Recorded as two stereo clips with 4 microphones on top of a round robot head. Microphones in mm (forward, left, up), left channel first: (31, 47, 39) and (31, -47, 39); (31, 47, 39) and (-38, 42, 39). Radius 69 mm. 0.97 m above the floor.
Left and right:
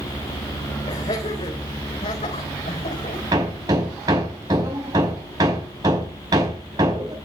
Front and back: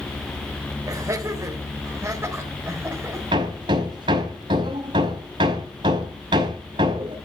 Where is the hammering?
150° right, 4.5 m.